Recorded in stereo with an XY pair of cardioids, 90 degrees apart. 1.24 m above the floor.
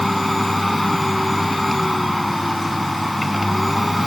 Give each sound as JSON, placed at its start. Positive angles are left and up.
{"t": 0.0, "sound": "a machine running", "azimuth_deg": 0}